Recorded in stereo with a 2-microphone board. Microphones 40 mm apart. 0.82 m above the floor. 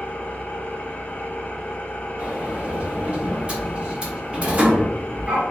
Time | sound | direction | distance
0.0 | an engine running | 35° left (ahead or behind) | 0.8 m
2.2 | a sliding door | 30° right (ahead or behind) | 1.4 m